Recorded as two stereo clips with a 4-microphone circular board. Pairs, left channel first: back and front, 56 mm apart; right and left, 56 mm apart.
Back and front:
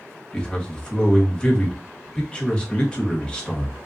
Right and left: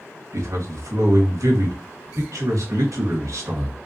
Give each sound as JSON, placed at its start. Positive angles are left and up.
{"t": 0.3, "sound": "a man speaking", "azimuth_deg": 110, "distance_m": 1.2}